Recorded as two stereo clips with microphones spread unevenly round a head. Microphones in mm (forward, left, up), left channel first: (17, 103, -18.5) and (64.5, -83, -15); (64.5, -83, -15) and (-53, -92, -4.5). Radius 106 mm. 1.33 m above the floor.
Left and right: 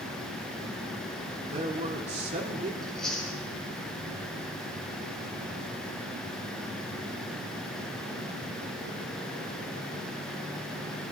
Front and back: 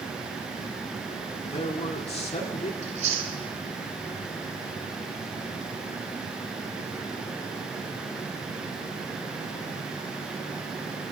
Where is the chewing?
165° right, 2.5 m.